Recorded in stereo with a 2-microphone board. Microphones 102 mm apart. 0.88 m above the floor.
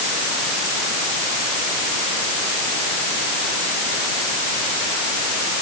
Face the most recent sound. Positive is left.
No sound to turn to.